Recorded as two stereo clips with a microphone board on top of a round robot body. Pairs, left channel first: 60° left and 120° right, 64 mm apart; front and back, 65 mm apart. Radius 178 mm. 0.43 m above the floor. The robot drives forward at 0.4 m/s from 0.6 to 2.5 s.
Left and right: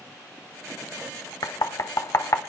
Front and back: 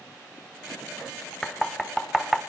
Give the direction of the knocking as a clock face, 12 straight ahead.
9 o'clock.